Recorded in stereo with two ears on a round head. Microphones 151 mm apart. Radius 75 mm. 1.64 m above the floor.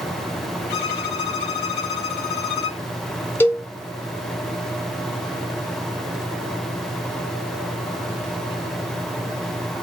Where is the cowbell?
10° left (ahead or behind), 1.4 m.